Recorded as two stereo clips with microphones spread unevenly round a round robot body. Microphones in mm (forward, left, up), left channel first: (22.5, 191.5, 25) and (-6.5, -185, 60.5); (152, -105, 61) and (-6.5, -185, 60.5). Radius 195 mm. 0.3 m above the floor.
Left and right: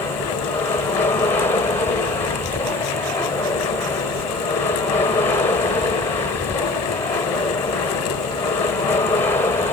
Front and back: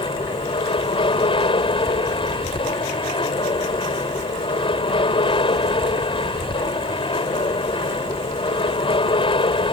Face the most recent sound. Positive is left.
turn(degrees=20)